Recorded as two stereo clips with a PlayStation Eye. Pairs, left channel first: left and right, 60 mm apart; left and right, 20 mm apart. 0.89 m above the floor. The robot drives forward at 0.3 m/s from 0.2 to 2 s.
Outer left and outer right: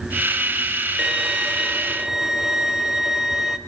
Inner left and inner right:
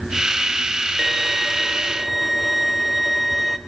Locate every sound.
1.0 s a violin: 10° right (ahead or behind), 0.6 m; by 3.6 s 5° right (ahead or behind), 0.9 m